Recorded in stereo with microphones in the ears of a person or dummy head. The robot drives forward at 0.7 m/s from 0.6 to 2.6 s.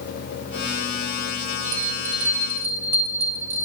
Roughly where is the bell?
Right.